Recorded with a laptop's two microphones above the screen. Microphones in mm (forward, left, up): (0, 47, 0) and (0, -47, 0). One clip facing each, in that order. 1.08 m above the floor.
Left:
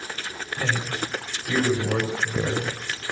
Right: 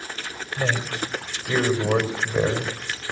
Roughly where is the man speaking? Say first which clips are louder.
Right 2 dB; right.